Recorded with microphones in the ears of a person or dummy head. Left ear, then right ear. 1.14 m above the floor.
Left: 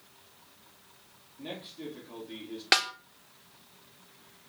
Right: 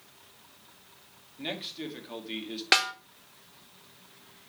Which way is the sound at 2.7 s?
10° left (ahead or behind).